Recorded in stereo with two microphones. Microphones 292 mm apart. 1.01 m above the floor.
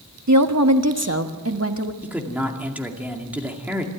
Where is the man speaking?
5° right (ahead or behind), 2 m.